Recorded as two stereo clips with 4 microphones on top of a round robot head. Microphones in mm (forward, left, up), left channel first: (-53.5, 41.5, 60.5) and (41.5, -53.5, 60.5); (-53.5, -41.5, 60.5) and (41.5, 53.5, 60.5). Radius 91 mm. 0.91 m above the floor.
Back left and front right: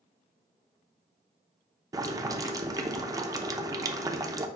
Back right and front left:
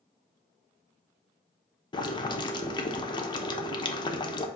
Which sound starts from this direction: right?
Boiling, at 1.9 s.